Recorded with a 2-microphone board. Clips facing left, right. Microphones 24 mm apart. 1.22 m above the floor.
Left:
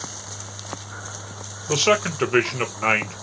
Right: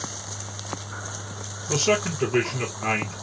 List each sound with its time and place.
1.7 s a man speaking: 80° left, 0.8 m